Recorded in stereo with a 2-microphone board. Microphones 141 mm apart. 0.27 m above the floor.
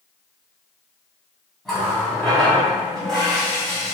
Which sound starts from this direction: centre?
A running tap, at 1.6 s.